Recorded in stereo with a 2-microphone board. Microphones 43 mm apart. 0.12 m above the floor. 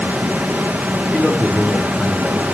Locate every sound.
1.1 s a man speaking: centre (ahead or behind), 7 m